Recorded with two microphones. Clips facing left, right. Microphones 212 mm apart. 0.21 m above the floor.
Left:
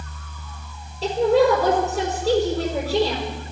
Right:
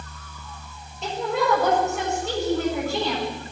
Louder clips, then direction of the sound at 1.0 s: Left 8 dB; 35° left (ahead or behind).